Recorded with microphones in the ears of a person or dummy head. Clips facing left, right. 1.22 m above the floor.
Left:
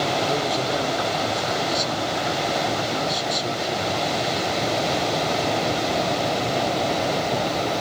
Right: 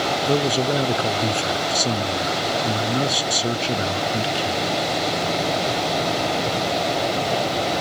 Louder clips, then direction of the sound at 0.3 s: Right 3 dB; 40° right (ahead or behind).